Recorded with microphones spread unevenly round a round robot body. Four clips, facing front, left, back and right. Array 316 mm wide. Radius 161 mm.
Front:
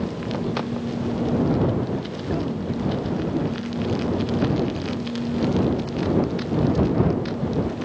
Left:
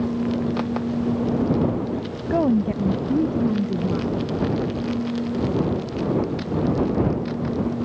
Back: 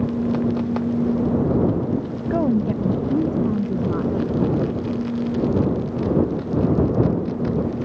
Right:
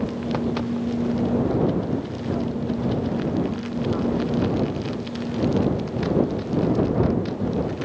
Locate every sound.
2.3 s a woman speaking: 125° left; by 4.3 s 140° left